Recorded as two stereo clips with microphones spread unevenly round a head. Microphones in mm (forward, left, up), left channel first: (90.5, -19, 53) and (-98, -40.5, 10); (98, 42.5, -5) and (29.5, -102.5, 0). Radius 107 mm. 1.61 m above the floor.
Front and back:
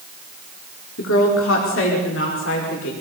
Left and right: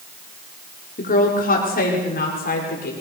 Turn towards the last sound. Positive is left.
turn(degrees=40)